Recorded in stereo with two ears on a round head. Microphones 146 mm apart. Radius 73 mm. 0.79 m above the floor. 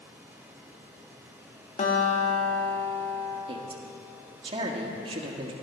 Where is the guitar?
45° left (ahead or behind), 1.7 m.